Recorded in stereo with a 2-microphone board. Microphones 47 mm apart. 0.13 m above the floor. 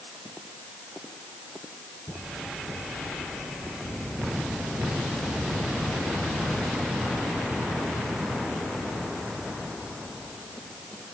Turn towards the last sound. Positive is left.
No sound to turn to.